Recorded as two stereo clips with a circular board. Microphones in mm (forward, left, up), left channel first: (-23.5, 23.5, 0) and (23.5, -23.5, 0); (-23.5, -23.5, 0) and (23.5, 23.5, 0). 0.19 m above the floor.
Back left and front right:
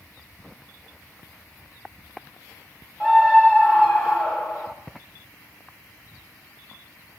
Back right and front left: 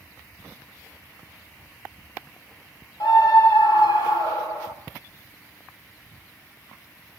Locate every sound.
3.0 s a scream: 110° right, 6 m